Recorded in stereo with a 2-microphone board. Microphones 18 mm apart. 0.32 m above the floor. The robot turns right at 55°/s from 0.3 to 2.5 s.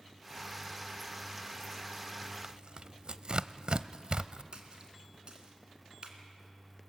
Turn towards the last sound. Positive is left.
turn(degrees=-50)  # may be behind; listen again after turning